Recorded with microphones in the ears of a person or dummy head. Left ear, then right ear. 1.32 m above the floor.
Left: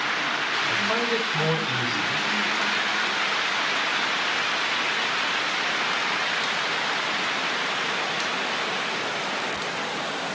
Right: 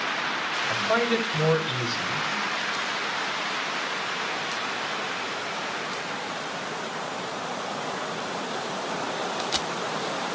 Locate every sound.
0.7 s a man speaking: 10° right (ahead or behind), 6.5 m